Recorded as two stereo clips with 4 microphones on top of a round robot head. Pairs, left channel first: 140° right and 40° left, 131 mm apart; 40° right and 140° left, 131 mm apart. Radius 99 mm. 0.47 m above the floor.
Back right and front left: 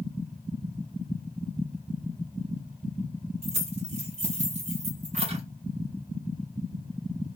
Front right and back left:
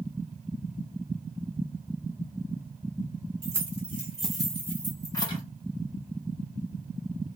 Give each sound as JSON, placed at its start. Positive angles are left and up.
{"t": 3.4, "sound": "keys jangling", "azimuth_deg": 70, "distance_m": 1.5}